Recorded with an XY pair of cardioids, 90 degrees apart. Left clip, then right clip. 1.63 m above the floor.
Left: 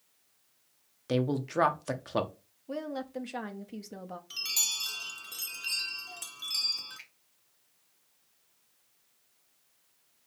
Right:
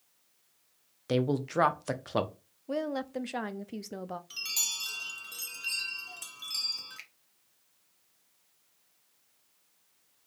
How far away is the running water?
No running water in this recording.